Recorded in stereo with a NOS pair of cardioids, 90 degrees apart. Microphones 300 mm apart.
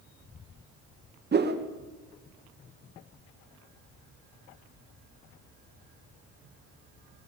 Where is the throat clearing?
I don't hear throat clearing.